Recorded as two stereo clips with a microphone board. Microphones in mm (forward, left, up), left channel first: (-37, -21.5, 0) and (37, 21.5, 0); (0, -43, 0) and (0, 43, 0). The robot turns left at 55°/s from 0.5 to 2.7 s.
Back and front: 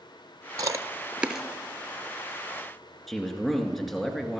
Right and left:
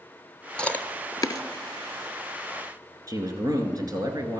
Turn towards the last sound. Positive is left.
turn(degrees=120)